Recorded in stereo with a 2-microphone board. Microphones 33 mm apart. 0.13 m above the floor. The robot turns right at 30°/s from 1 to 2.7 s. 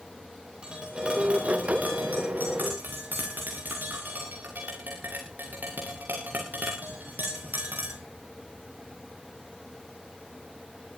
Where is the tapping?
25° right (ahead or behind), 6.5 m; by 8.0 s 75° right (ahead or behind), 6.5 m.